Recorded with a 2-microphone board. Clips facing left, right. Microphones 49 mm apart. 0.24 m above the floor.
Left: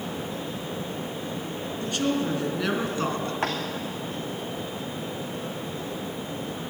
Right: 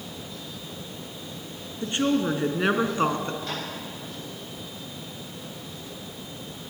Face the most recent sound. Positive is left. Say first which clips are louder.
# left 6 dB
turn(degrees=70)  # may be behind; listen again after turning